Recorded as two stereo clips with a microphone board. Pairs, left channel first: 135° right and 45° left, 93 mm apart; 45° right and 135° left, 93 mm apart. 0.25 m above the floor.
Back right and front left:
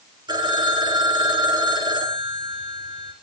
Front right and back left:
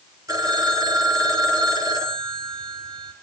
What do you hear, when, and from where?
0.3 s a phone ringing: 85° left, 3.5 m